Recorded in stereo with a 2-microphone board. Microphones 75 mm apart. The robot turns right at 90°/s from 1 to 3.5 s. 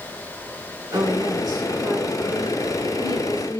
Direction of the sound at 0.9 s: 135° right.